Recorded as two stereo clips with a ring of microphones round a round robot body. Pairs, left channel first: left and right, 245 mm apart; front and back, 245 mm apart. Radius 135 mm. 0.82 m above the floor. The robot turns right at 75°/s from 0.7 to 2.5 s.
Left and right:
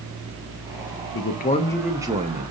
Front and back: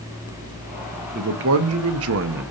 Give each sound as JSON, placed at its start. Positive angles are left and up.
{"t": 1.1, "sound": "a man speaking", "azimuth_deg": 125, "distance_m": 0.7}